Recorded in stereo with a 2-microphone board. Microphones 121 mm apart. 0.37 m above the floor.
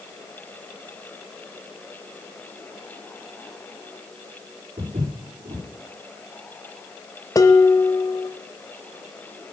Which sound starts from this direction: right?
Footsteps, at 4.8 s.